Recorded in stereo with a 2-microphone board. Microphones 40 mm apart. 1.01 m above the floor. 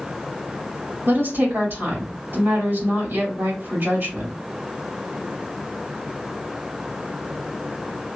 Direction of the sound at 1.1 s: 65° right (ahead or behind).